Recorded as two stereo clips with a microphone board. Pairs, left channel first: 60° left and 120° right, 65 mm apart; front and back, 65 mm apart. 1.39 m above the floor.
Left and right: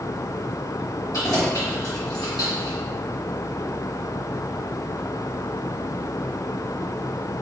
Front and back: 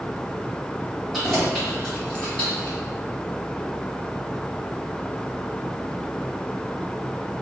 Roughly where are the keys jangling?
Left.